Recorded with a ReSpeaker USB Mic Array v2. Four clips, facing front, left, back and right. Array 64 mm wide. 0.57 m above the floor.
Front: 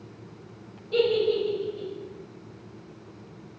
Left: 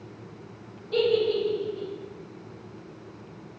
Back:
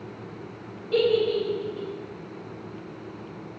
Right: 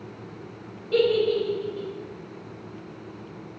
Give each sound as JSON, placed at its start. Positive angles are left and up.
{"t": 0.9, "sound": "a giggle", "azimuth_deg": -125, "distance_m": 1.8}